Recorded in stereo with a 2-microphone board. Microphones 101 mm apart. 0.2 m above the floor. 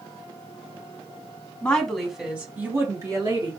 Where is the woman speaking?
10° left (ahead or behind), 1.5 m; by 3.5 s 40° right (ahead or behind), 1.7 m.